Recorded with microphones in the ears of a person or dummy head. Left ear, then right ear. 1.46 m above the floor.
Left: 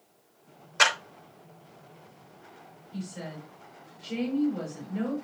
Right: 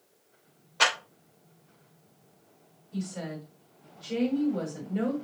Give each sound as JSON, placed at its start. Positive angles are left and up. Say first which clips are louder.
{"t": 0.8, "sound": "a clap", "louder": "left 2 dB", "side_deg": 55, "distance_m": 5.0}
{"t": 2.9, "sound": "a woman speaking", "louder": "right 3 dB", "side_deg": -10, "distance_m": 5.0}